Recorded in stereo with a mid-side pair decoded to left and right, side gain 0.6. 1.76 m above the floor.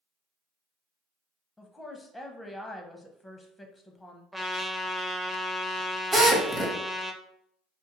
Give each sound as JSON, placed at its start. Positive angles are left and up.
{"t": 1.6, "sound": "a woman speaking", "azimuth_deg": 5, "distance_m": 0.7}
{"t": 4.3, "sound": "a trumpet", "azimuth_deg": -10, "distance_m": 0.7}
{"t": 6.1, "sound": "a drill", "azimuth_deg": -15, "distance_m": 1.0}